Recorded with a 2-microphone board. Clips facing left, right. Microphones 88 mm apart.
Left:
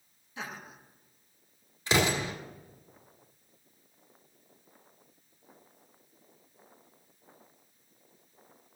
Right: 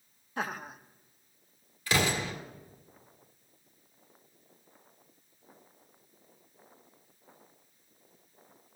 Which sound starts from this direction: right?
Laughter, at 0.4 s.